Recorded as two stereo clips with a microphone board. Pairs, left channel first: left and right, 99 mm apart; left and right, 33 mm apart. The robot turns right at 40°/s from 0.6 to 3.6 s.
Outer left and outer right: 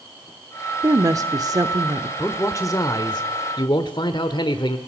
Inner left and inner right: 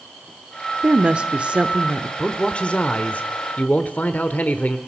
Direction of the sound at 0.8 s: 120° right.